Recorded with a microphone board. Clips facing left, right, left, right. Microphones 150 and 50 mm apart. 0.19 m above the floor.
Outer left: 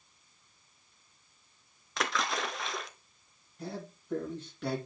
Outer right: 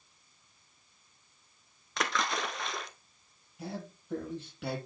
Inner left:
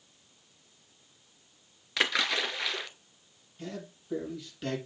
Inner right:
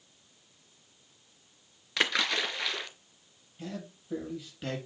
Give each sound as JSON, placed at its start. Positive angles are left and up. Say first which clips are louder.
{"t": 2.0, "sound": "a splash", "louder": "even, even", "side_deg": 0, "distance_m": 0.8}
{"t": 3.6, "sound": "a man speaking", "louder": "even, even", "side_deg": -5, "distance_m": 5.5}